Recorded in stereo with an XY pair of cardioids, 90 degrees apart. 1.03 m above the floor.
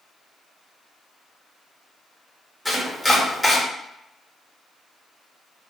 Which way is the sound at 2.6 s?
5° left.